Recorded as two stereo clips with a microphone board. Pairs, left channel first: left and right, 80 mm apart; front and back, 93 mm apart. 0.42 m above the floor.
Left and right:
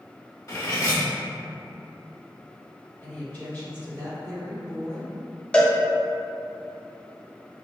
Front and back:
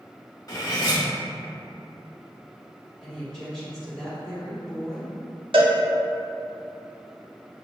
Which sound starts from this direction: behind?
A cowbell, at 5.5 s.